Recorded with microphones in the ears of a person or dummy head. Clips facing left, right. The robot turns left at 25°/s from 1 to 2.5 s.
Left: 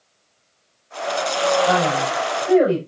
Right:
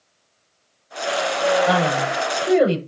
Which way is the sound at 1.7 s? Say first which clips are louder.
Even; 25° right (ahead or behind).